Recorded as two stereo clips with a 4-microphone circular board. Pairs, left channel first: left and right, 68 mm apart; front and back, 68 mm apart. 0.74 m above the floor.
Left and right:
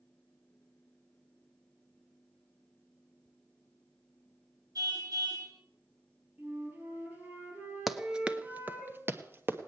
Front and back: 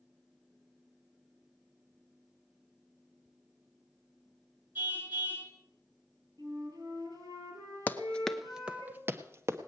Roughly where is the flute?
Behind right.